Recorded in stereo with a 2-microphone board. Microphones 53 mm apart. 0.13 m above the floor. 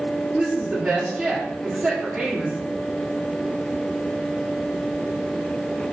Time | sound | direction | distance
0.3 | a woman speaking | 10° right (ahead or behind) | 1.5 m